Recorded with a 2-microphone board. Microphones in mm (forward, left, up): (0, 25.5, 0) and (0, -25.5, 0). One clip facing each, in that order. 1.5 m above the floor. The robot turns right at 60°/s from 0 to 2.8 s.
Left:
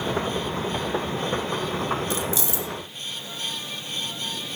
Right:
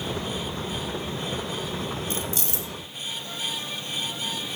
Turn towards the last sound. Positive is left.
turn(degrees=-90)